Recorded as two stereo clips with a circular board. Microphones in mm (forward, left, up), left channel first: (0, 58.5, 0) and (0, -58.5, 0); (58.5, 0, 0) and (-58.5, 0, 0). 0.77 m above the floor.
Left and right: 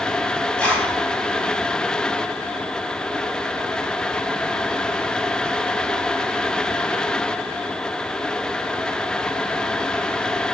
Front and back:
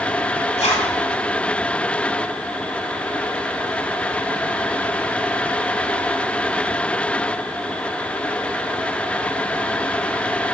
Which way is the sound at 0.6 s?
10° left.